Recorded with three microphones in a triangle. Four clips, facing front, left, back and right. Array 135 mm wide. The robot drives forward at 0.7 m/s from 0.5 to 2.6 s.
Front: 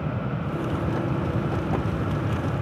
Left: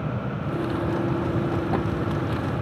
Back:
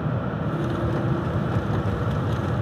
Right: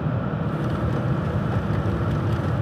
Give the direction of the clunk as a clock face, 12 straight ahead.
No clunk in this recording.